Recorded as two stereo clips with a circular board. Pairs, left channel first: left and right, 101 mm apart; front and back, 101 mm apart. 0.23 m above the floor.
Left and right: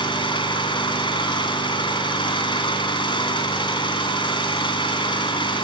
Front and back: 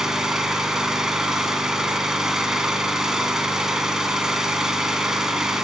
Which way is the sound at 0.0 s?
95° left.